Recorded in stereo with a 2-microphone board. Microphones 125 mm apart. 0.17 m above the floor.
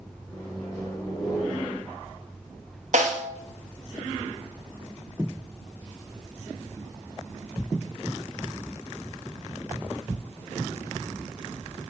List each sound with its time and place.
0.3 s a microwave: 30° left (ahead or behind), 1.7 m
2.9 s a snare drum: 75° right (ahead or behind), 0.6 m